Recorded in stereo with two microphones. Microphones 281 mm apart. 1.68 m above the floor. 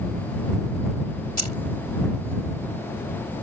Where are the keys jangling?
75° right (ahead or behind).